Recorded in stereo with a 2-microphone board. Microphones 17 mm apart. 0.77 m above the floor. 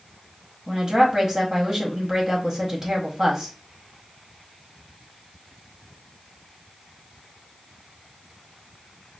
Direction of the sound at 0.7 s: 30° right (ahead or behind).